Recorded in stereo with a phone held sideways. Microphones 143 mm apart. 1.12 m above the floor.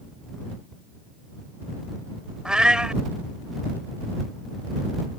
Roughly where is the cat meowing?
Centre.